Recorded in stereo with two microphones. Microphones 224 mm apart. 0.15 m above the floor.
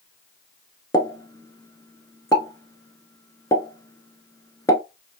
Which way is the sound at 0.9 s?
15° left (ahead or behind).